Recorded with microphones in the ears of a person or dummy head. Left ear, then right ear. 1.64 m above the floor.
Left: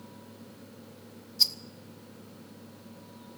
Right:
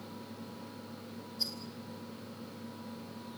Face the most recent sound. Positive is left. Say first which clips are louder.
# left 11 dB
turn(degrees=25)  # may be behind; listen again after turning